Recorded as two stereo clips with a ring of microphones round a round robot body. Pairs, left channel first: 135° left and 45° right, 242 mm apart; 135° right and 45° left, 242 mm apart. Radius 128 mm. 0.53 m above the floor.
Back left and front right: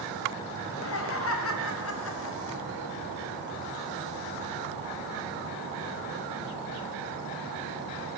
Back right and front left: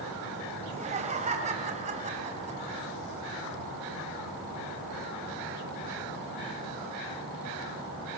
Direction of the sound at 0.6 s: 105° left.